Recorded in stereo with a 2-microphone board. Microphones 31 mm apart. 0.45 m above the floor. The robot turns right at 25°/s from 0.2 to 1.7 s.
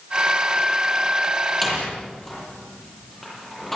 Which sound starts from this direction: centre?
A door slam, at 1.6 s.